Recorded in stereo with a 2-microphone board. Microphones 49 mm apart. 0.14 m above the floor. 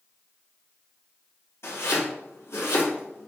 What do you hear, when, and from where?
1.6 s chopping: 65° left (ahead or behind), 4 m